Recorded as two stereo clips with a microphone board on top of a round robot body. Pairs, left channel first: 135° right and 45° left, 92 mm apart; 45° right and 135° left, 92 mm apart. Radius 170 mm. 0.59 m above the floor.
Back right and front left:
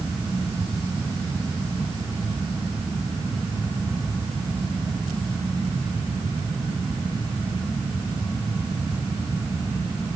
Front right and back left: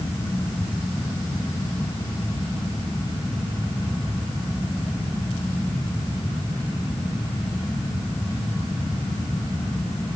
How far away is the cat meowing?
No cat meowing in this recording.